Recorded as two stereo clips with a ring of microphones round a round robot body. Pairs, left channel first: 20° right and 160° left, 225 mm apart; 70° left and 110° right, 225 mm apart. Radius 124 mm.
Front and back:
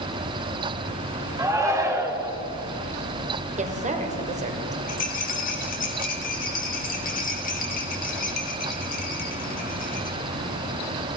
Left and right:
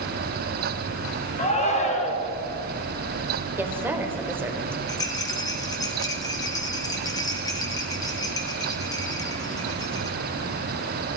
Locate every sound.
1.4 s a shout: 95° left, 1.6 m
3.6 s a woman speaking: 175° left, 1.3 m
4.9 s a rattle: straight ahead, 1.6 m